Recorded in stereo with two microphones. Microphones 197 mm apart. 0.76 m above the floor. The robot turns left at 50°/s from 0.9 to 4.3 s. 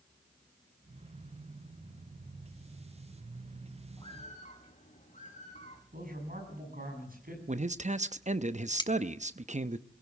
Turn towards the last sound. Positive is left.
turn(degrees=20)  # may be behind; listen again after turning